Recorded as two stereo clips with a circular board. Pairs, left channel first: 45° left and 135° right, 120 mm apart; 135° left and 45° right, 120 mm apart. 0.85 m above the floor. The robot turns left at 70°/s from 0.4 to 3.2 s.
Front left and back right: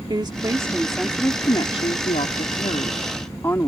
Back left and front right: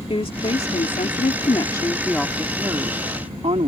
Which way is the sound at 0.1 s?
175° left.